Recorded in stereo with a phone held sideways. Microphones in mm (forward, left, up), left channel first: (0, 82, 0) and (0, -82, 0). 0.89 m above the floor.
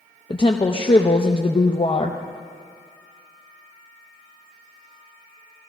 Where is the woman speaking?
35° left (ahead or behind), 0.6 m.